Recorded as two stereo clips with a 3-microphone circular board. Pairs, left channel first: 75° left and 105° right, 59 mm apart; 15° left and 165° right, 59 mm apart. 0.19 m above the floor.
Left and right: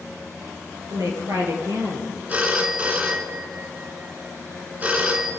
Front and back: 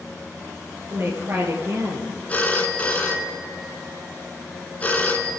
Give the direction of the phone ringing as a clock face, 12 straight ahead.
2 o'clock.